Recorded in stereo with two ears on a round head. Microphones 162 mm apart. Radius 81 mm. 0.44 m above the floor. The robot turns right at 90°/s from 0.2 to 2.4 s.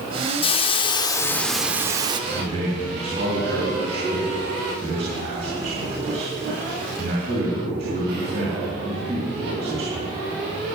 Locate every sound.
0.4 s a hiss: 80° left, 0.5 m; by 2.2 s 120° right, 0.5 m
2.3 s a man speaking: 45° right (ahead or behind), 3.5 m; by 10.1 s 35° right (ahead or behind), 3.5 m